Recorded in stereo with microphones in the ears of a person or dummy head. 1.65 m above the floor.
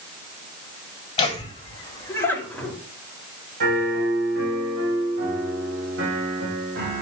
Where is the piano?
60° right (ahead or behind), 3.5 m.